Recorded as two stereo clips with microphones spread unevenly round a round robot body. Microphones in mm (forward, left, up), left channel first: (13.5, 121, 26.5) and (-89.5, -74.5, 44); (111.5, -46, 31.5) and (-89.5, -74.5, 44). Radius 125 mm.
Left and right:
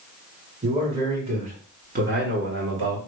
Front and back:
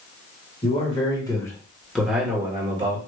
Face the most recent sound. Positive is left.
turn(degrees=-115)